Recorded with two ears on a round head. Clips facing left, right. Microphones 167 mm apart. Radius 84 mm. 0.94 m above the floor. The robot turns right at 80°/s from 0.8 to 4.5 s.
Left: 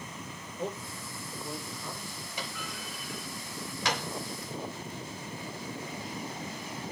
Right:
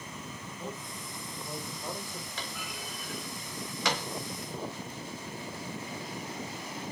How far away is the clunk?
About 4 m.